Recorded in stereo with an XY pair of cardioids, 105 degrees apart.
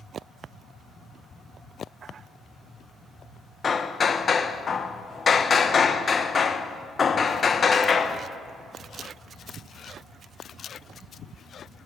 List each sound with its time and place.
3.6 s hammering: 35° left, 0.7 m